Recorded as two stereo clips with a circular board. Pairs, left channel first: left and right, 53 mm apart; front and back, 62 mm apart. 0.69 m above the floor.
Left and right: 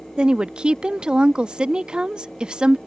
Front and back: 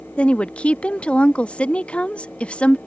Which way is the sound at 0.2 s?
40° right.